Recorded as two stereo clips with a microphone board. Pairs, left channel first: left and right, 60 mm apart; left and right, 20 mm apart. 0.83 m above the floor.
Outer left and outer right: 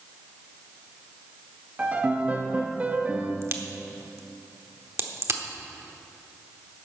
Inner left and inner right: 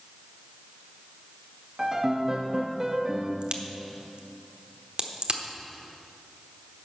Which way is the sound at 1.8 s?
25° right (ahead or behind).